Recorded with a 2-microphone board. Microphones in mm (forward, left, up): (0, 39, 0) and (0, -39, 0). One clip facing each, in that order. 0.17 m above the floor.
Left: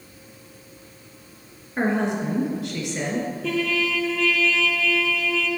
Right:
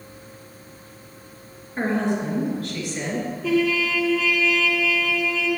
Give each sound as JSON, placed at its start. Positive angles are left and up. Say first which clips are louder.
{"t": 1.8, "sound": "a woman speaking", "louder": "even", "side_deg": 20, "distance_m": 2.5}
{"t": 3.4, "sound": "a trumpet", "louder": "right 6 dB", "side_deg": -5, "distance_m": 1.2}